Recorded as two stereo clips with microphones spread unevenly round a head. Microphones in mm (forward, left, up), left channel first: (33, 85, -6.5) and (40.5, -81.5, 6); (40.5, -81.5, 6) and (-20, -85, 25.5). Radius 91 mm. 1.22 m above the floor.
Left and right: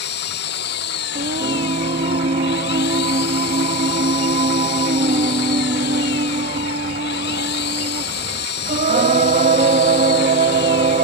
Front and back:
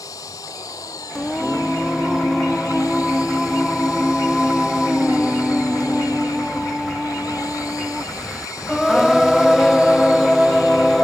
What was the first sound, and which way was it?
An engine running, 70° left.